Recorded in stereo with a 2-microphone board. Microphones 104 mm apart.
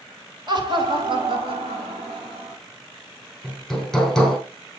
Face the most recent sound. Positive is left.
turn(degrees=5)  # may be behind; listen again after turning